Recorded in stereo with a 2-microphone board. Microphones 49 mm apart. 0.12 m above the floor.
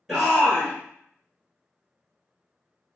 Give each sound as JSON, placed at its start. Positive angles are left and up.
{"t": 0.1, "sound": "a shout", "side_deg": -5, "distance_m": 1.8}